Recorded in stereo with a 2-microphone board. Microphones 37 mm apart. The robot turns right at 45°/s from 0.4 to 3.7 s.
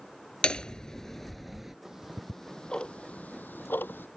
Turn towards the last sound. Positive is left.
turn(degrees=65)  # may be behind; listen again after turning